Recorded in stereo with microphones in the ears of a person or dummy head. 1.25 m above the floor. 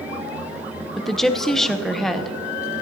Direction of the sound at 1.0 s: Centre (ahead or behind).